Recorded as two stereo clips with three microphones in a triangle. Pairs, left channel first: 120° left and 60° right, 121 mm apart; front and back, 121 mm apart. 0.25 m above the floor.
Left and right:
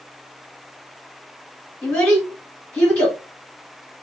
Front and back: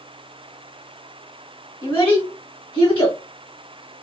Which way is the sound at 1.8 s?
45° left.